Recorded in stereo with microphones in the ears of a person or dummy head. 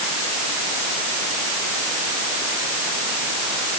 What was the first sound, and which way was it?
Only background noise.